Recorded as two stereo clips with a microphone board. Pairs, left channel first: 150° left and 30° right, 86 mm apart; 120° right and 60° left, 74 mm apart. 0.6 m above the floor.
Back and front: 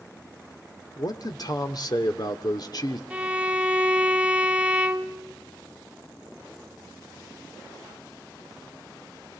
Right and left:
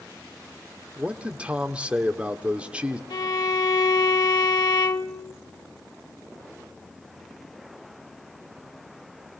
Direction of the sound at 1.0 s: 135° left.